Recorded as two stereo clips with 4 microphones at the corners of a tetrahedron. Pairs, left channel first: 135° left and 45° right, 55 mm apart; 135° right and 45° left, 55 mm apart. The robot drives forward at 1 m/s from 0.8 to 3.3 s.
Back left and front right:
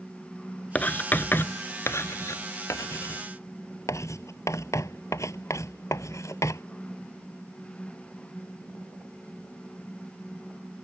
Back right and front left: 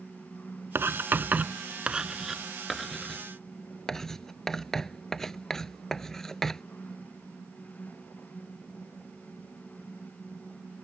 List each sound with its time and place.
0.8 s writing: 80° left; by 6.6 s 145° left